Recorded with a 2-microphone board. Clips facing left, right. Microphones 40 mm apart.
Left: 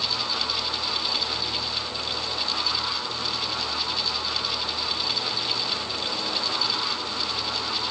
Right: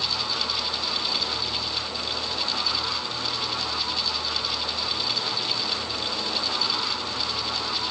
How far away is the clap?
No clap in this recording.